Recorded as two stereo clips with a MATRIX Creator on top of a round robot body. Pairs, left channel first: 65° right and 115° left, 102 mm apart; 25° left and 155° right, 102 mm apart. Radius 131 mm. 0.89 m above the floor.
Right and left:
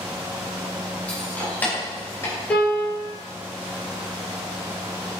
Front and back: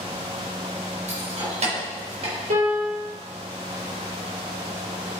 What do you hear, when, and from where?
1.1 s keys jangling: 145° right, 3 m; by 2.4 s 130° right, 3 m
2.5 s a piano: 140° right, 4.5 m